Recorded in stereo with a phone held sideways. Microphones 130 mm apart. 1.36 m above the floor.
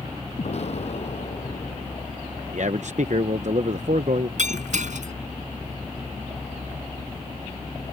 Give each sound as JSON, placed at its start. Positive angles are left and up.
{"t": 0.4, "sound": "an explosion", "side_deg": 55}
{"t": 2.5, "sound": "a man speaking", "side_deg": -65}
{"t": 4.4, "sound": "breaking glass", "side_deg": -70}